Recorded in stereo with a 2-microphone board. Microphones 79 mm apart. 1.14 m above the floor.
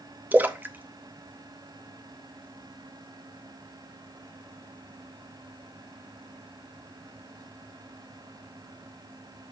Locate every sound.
0.3 s a splash: 20° right (ahead or behind), 0.7 m